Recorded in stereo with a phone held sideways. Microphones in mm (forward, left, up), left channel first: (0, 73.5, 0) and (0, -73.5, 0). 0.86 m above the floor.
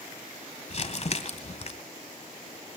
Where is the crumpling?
50° left (ahead or behind), 2.0 m.